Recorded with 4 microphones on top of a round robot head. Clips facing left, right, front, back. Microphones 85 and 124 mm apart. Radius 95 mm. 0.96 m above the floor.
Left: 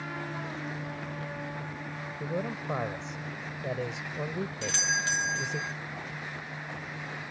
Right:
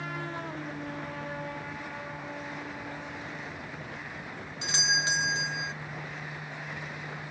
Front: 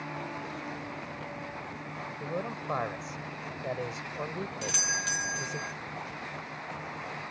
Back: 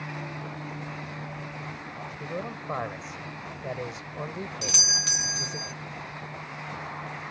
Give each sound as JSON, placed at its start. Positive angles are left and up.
{"t": 2.2, "sound": "a man speaking", "azimuth_deg": 90}
{"t": 4.6, "sound": "a doorbell", "azimuth_deg": -150}